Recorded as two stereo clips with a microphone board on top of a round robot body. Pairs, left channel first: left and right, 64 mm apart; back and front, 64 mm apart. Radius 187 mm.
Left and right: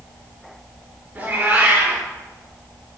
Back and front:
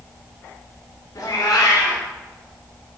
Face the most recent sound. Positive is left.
turn(degrees=-155)